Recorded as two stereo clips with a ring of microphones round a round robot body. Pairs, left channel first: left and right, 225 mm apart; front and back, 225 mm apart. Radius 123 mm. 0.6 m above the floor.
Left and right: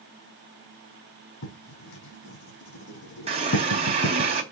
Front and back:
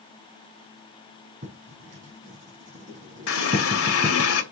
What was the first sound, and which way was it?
Writing, 120° left.